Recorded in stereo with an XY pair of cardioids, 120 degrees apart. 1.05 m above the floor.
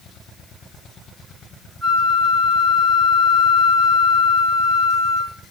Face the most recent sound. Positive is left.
turn(degrees=20)